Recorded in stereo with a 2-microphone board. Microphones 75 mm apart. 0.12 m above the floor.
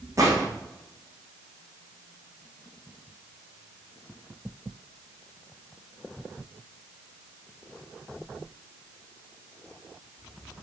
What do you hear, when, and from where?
0.2 s a gunshot: 45° right (ahead or behind), 6 m